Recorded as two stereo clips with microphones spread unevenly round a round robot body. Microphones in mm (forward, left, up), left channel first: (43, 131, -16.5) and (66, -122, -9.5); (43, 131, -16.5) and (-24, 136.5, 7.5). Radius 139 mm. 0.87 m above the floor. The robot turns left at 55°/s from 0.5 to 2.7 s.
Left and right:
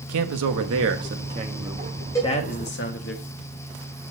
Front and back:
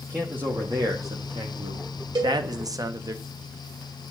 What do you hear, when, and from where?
0.1 s a man speaking: 100° right, 1.3 m; by 3.1 s 140° left, 1.3 m
2.1 s a cowbell: 175° left, 2.5 m; by 2.4 s 165° left, 2.5 m